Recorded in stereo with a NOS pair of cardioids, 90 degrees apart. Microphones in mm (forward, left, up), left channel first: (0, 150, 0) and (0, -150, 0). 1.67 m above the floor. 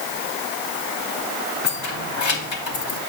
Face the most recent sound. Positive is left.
turn(degrees=65)